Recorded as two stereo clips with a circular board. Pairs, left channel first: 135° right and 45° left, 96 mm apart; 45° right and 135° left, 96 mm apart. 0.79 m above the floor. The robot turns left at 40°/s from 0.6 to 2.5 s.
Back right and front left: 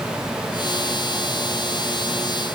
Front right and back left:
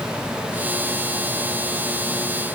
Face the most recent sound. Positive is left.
No sound to turn to.